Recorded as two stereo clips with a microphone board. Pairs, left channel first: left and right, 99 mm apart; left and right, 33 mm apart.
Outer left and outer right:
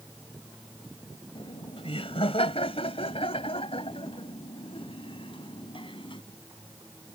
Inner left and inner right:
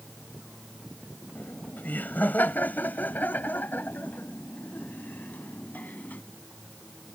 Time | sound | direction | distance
1.4 | laughter | 65° left (ahead or behind) | ?